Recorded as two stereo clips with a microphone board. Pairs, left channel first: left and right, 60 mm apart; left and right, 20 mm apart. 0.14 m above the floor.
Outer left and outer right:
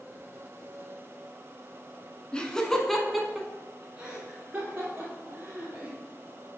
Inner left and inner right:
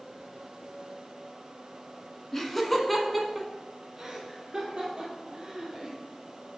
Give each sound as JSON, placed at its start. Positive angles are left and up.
{"t": 2.3, "sound": "laughter", "side_deg": 15, "distance_m": 1.4}